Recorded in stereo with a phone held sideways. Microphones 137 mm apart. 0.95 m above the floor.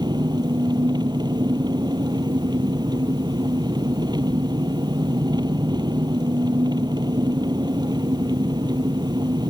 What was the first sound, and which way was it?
An engine running, 30° right (ahead or behind).